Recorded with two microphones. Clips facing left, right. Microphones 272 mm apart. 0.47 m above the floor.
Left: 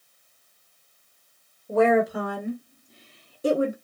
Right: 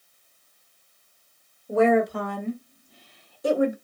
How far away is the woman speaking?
About 2 m.